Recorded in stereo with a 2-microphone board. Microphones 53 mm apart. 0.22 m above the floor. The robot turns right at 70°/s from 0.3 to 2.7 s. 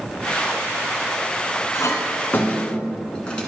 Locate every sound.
1.7 s a clink: 60° left (ahead or behind), 1.6 m; by 3.5 s 20° left (ahead or behind), 1.6 m